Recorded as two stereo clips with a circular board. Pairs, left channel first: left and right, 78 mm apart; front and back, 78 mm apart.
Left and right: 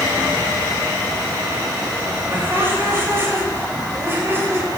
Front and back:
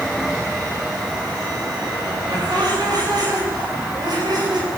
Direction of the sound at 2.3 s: 150° right.